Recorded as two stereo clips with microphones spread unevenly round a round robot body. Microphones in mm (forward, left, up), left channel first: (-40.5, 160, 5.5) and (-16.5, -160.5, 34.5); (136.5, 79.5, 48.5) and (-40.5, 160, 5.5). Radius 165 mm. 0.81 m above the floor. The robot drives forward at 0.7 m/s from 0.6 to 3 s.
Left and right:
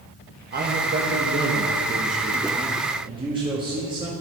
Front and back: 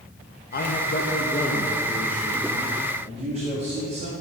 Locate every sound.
0.5 s a man speaking: 35° right, 1.1 m; by 4.2 s 160° right, 1.5 m